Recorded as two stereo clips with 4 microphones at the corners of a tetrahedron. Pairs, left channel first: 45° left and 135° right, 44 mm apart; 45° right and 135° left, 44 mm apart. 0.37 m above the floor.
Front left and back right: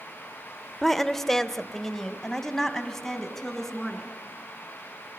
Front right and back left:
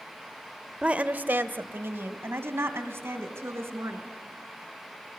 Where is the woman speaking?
125° left, 0.8 m.